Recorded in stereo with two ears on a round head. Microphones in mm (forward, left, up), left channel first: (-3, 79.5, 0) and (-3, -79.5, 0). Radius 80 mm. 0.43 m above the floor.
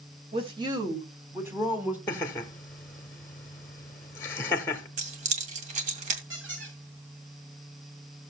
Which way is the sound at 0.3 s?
35° right (ahead or behind).